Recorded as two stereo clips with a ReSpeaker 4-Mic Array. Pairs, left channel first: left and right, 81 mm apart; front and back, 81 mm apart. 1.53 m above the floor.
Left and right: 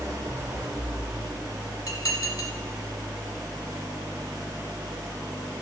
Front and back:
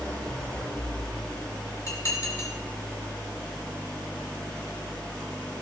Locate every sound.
0.0 s an engine running: 70° right, 1.2 m
1.9 s dishes clattering: 50° left, 2 m